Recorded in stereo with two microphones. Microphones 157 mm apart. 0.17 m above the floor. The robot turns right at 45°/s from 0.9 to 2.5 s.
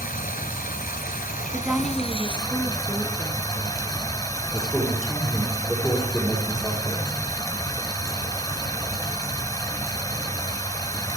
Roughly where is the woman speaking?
Ahead.